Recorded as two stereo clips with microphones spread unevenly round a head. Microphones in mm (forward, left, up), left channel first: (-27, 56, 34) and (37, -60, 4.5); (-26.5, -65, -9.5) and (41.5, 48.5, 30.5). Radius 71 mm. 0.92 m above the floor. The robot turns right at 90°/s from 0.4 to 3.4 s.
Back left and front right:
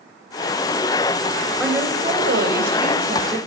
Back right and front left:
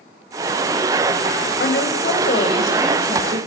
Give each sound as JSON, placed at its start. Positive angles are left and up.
{"t": 1.6, "sound": "a woman speaking", "azimuth_deg": -150, "distance_m": 5.0}